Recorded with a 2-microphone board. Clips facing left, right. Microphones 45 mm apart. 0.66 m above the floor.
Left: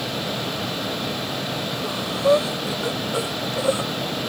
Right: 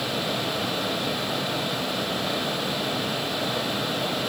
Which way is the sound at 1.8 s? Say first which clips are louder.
Left 7 dB; 85° left.